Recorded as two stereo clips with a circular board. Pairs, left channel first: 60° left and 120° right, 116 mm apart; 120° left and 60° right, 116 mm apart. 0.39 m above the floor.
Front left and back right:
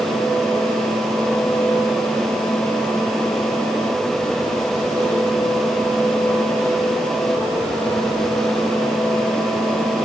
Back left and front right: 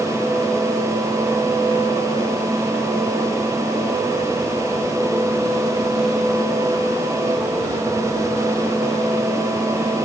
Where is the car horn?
No car horn in this recording.